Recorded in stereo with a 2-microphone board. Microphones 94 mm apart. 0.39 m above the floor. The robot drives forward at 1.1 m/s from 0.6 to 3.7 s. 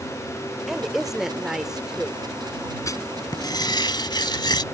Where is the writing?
35° left (ahead or behind); by 4.6 s 50° left (ahead or behind).